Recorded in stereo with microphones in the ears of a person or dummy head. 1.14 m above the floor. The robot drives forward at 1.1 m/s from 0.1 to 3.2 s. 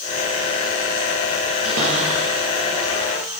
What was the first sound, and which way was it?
A cupboard door, 85° right.